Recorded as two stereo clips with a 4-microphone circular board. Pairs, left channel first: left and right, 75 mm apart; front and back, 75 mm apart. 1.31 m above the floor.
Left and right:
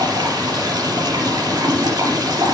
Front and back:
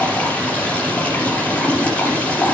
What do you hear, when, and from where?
0.0 s running water: 70° right, 5 m